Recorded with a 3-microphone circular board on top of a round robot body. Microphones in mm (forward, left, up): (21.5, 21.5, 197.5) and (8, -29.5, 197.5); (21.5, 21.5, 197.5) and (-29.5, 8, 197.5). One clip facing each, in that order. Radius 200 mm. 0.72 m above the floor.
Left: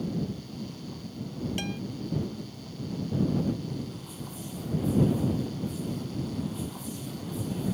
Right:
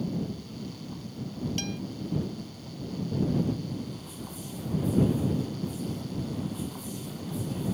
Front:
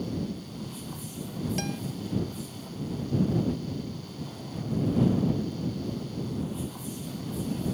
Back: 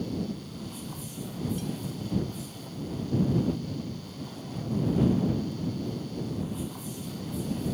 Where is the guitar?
5° left.